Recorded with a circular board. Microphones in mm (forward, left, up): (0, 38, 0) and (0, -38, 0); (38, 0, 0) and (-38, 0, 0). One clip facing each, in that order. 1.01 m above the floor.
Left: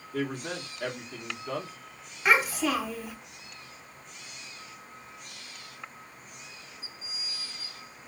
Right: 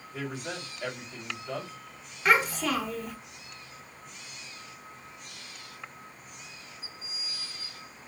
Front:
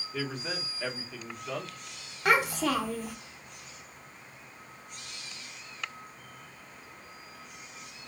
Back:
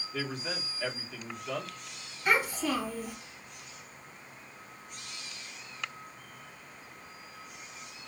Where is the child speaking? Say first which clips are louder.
Even, front 3 dB; 5° left, 1.1 m.